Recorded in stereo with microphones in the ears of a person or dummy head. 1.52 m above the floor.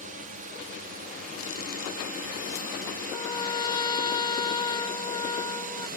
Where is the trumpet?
25° left (ahead or behind).